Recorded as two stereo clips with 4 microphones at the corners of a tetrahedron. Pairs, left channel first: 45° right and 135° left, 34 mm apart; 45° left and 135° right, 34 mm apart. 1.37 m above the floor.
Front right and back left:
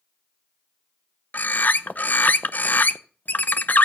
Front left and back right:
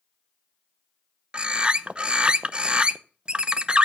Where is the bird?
75° right, 0.6 m.